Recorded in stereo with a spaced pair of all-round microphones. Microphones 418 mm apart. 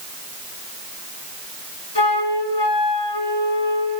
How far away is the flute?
About 4 m.